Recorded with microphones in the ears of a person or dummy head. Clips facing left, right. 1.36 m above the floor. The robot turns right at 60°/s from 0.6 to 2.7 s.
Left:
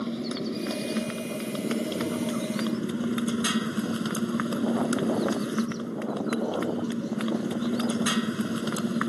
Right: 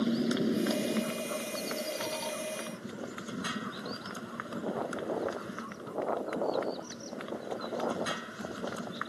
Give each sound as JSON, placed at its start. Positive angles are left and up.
{"t": 0.0, "sound": "a motorcycle", "azimuth_deg": -10}